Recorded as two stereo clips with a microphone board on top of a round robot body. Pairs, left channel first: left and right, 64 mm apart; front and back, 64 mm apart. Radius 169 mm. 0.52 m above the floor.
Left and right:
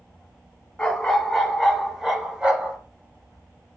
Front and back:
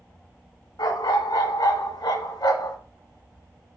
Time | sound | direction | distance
0.8 | a dog barking | 10° left | 2 m